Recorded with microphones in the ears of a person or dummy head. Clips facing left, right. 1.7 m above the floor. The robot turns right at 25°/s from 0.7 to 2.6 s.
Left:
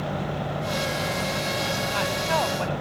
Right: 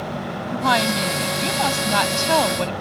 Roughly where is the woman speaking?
Right.